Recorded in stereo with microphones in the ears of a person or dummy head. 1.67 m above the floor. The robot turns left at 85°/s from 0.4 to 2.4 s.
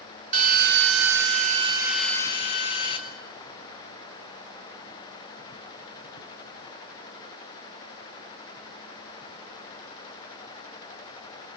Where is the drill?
50° right, 1.7 m; by 3.0 s 140° left, 1.7 m.